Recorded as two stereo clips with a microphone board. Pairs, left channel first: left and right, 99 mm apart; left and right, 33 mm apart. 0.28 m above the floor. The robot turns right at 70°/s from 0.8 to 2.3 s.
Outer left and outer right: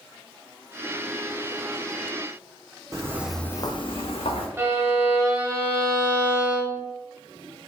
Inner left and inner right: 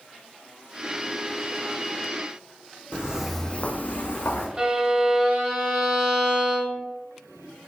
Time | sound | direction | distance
2.9 | footsteps | 30° right (ahead or behind) | 0.9 m
4.6 | a violin | 25° right (ahead or behind) | 0.7 m